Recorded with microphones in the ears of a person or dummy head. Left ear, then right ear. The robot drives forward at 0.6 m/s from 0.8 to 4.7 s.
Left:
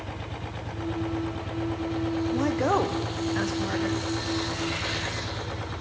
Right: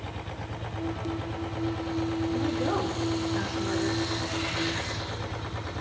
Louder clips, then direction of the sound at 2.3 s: Left 6 dB; 40° left (ahead or behind).